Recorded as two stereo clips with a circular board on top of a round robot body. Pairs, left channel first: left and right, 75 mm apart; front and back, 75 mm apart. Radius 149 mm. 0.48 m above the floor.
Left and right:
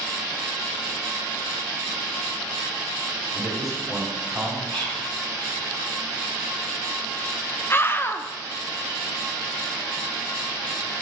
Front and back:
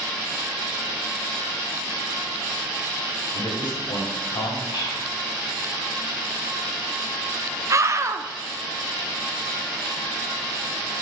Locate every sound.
3.3 s a man speaking: straight ahead, 3 m
4.7 s whispering: 20° left, 3.5 m
7.7 s a scream: 140° left, 1.1 m